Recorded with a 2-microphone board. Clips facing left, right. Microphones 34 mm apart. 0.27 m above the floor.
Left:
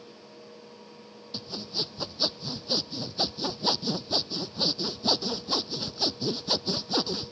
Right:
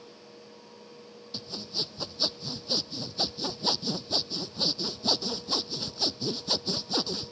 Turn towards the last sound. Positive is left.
turn(degrees=10)  # may be behind; listen again after turning